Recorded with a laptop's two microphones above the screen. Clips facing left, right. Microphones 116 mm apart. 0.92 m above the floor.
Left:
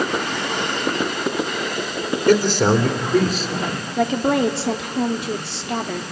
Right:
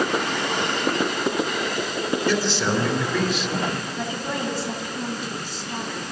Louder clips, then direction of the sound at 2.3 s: Left 11 dB; 55° left (ahead or behind).